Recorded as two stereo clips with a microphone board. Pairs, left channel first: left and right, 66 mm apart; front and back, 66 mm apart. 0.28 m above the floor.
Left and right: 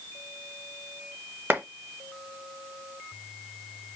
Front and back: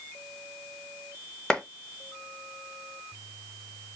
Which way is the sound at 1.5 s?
60° right.